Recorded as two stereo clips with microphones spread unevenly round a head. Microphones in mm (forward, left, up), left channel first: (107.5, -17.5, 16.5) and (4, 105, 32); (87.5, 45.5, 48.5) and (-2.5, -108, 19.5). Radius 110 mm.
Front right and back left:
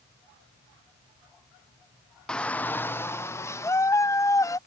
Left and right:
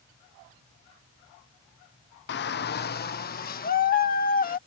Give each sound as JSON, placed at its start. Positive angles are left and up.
{"t": 2.3, "sound": "a shout", "azimuth_deg": 35}